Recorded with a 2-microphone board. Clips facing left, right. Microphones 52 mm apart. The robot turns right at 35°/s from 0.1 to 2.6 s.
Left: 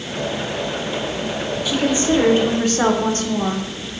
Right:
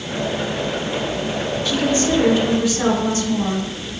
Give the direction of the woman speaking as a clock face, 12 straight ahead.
12 o'clock.